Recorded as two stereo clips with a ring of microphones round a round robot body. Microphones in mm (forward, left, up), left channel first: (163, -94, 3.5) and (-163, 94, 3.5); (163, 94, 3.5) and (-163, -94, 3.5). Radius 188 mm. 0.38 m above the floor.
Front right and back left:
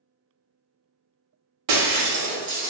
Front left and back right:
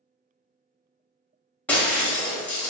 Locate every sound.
1.7 s breaking glass: 115° left, 0.7 m